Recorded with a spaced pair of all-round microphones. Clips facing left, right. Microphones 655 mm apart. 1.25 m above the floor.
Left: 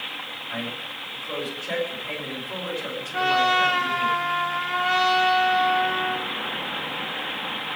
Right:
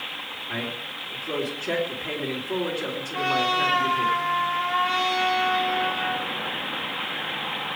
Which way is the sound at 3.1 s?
70° left (ahead or behind).